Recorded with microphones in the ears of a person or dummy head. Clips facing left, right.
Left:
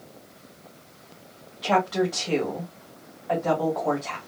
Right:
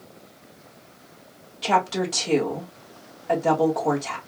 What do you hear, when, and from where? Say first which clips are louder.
1.6 s a woman speaking: left 1 dB; 30° right (ahead or behind), 2 m